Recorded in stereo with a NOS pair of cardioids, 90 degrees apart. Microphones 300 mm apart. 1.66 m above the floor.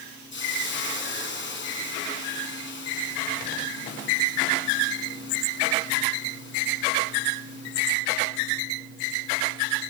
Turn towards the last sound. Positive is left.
turn(degrees=40)